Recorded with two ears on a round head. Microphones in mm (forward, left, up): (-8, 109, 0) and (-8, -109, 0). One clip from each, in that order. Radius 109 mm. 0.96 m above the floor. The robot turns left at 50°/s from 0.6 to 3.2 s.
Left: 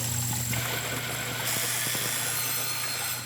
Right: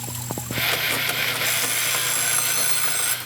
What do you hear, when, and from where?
1.4 s an alarm clock: 60° right, 5 m; by 3.1 s 145° right, 5 m